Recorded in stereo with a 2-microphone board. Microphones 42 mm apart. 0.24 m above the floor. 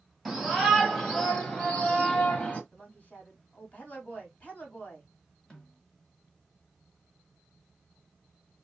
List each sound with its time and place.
0.2 s a shout: centre (ahead or behind), 1.3 m; by 2.6 s 30° left (ahead or behind), 1.2 m
2.7 s a woman speaking: 35° left (ahead or behind), 1.6 m
5.5 s a snare drum: 20° left (ahead or behind), 1.7 m